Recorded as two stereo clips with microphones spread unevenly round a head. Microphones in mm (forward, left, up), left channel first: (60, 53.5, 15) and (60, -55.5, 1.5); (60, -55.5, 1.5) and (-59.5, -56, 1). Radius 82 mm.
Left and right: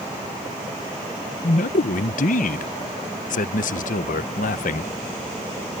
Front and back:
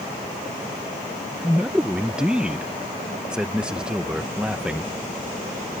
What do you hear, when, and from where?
1.4 s a man speaking: 95° left